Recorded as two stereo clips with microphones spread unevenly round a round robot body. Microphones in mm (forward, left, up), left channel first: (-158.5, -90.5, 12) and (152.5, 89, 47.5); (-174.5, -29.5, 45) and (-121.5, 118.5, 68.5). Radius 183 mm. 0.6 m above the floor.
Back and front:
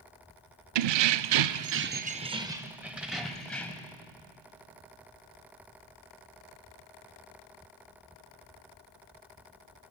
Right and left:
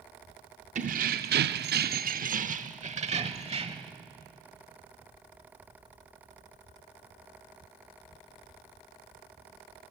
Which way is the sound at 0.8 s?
15° left.